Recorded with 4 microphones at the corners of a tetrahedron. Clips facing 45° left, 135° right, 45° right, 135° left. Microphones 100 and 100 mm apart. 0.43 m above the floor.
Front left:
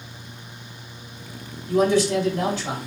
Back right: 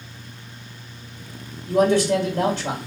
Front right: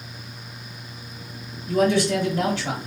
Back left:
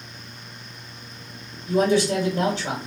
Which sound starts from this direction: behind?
A man speaking, at 1.7 s.